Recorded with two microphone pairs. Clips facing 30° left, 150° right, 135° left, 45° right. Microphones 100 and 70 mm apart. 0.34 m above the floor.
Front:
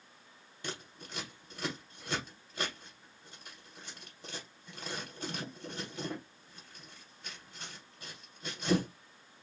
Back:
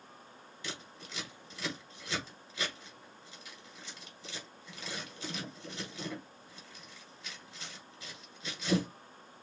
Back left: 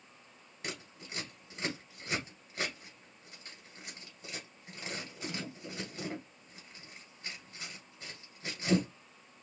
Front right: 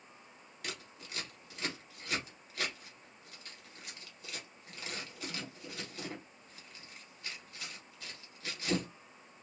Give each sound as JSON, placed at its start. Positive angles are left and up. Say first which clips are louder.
{"t": 0.6, "sound": "scissors", "louder": "front 2 dB, back left 2 dB", "azimuth_deg": 70, "distance_m": 1.9}